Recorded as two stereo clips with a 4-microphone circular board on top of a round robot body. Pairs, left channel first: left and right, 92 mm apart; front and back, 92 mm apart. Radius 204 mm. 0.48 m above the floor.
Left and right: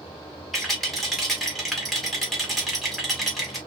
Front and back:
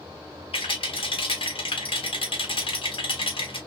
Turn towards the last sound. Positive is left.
turn(degrees=0)